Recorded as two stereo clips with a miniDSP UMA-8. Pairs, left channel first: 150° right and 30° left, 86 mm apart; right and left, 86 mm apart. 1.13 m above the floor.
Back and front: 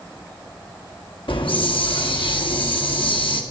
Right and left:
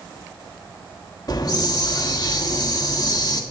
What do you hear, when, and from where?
1.3 s a hiss: 135° right, 1.4 m